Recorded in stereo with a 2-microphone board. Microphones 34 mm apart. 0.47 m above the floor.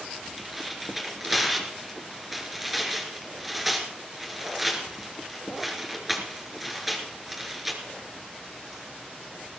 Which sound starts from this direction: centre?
Tearing paper, at 0.4 s.